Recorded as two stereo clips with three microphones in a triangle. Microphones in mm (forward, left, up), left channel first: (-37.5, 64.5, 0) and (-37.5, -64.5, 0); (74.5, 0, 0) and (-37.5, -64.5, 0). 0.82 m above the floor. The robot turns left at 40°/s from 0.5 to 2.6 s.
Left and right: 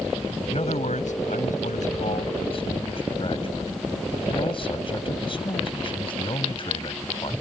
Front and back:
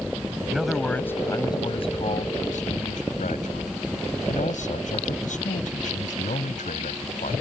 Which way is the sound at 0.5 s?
130° left.